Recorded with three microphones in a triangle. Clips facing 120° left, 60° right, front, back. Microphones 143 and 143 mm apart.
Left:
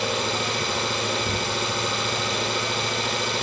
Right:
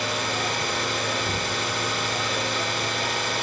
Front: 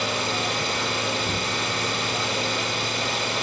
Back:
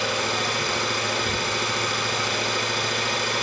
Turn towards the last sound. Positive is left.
turn(degrees=65)